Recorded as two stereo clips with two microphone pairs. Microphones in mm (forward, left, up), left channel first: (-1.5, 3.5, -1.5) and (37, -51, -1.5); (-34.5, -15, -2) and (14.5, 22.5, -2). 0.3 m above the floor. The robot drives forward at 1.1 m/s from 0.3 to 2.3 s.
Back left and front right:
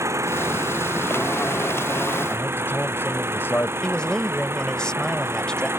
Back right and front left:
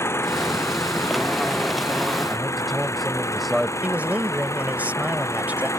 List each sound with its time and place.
0.0 s an engine running: 100° right; by 5.8 s 105° right
2.3 s a man speaking: 125° left
3.8 s a man speaking: 60° left